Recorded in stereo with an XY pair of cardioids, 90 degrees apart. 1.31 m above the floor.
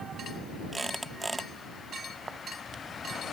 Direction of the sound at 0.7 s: 15° right.